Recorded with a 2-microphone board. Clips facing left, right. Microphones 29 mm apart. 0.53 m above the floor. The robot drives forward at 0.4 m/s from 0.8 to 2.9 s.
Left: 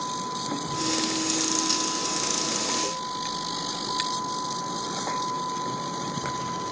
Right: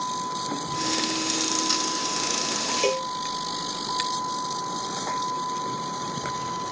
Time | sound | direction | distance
0.0 | a vehicle | 10° right (ahead or behind) | ?
2.8 | a cowbell | 60° right (ahead or behind) | ?